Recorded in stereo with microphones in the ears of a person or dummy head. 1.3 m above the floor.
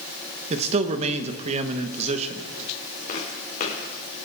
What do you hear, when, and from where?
0.5 s a man speaking: 35° right (ahead or behind), 1.3 m
3.1 s footsteps: 45° left (ahead or behind), 4 m